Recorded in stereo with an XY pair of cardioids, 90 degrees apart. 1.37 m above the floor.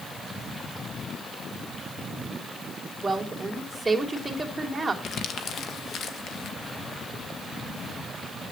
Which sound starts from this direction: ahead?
A woman speaking, at 3.0 s.